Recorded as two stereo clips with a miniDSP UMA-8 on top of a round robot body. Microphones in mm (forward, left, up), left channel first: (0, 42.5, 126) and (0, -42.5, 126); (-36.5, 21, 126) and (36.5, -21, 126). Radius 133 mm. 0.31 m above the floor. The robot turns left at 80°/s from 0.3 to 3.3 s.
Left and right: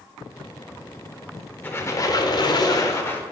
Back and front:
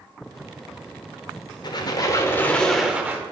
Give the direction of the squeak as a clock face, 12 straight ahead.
7 o'clock.